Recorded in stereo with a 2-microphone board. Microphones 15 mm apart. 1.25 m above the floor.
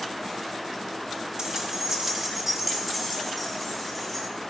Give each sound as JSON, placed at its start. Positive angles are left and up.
{"t": 1.4, "sound": "keys jangling", "side_deg": -45, "distance_m": 1.6}